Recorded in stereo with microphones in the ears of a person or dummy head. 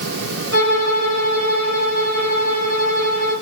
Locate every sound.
0.5 s a violin: 70° right (ahead or behind), 2 m